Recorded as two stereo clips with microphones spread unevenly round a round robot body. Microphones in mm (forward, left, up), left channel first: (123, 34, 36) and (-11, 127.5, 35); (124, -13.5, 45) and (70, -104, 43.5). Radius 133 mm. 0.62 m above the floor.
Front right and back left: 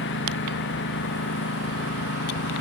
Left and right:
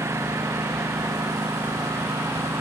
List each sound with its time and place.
0.0 s a lawn mower: 55° right